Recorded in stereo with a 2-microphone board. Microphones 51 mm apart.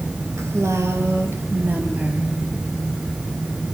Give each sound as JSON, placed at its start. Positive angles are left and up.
{"t": 0.4, "sound": "a woman speaking", "side_deg": -70, "distance_m": 3.5}